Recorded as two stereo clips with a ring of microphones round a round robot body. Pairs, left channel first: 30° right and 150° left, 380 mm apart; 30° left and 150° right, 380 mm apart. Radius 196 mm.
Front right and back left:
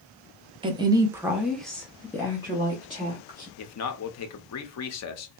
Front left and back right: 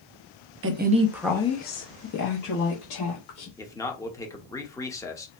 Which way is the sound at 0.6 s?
145° right.